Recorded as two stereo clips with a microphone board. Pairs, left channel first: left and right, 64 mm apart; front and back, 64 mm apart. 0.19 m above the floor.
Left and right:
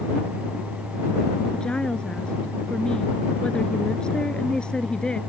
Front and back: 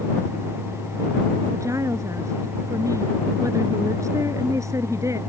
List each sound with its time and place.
1.5 s a woman speaking: 165° left